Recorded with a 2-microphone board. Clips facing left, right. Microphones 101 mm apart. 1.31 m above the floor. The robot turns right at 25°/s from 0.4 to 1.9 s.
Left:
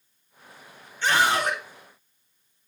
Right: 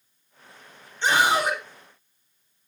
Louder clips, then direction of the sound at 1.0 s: Right 1 dB; 20° right (ahead or behind).